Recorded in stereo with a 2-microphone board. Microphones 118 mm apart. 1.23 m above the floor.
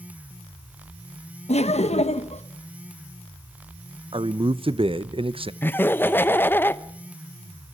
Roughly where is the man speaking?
Right.